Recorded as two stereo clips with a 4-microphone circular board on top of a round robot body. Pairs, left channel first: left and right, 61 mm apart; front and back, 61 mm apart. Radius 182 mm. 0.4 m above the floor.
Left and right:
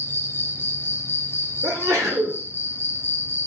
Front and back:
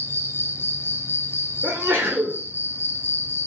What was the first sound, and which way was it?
An insect, 45° left.